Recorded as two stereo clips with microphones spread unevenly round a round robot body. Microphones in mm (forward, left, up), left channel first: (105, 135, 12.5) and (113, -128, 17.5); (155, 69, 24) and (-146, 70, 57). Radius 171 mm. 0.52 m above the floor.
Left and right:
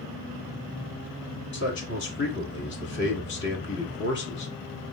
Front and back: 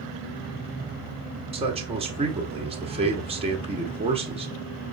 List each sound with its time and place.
1.5 s a man speaking: 110° left, 1.3 m